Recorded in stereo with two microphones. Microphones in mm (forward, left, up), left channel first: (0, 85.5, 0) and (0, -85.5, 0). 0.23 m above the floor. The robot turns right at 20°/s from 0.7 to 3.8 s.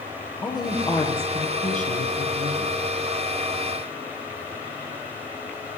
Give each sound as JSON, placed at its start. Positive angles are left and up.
{"t": 0.4, "sound": "a woman speaking", "azimuth_deg": 25, "distance_m": 7.5}